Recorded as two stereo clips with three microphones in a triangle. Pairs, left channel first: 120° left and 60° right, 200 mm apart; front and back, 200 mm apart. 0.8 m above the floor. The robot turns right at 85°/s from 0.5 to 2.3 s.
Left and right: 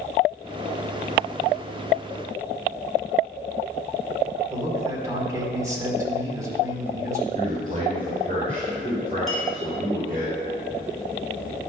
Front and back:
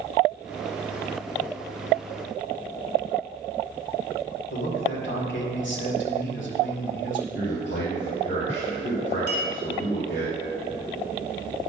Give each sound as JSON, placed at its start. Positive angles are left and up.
{"t": 4.5, "sound": "a man speaking", "azimuth_deg": 15, "distance_m": 2.0}
{"t": 7.3, "sound": "a man speaking", "azimuth_deg": -10, "distance_m": 3.0}
{"t": 9.3, "sound": "a clink", "azimuth_deg": 30, "distance_m": 2.5}